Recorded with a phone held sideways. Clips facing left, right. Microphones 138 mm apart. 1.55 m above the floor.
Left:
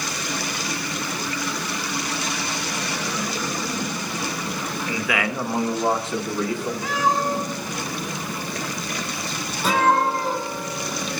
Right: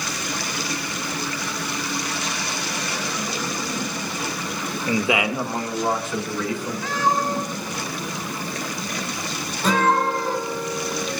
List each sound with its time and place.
4.9 s a man speaking: 45° right (ahead or behind), 1.0 m; by 6.7 s 45° left (ahead or behind), 2 m
6.8 s a cat meowing: 15° left (ahead or behind), 5.5 m
9.6 s a guitar: 10° left (ahead or behind), 4 m